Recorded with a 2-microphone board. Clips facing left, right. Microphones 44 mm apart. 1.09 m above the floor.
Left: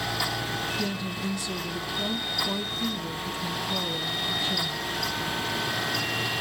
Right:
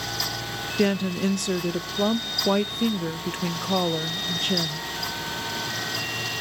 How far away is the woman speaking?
About 0.6 m.